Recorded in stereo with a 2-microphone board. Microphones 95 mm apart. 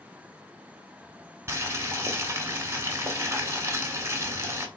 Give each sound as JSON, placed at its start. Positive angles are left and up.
{"t": 1.5, "sound": "boiling", "side_deg": -30, "distance_m": 1.2}